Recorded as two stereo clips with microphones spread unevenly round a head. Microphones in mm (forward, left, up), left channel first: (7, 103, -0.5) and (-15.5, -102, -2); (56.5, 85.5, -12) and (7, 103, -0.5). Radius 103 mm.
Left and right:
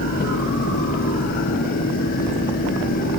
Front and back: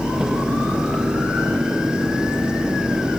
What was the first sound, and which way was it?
Only background noise.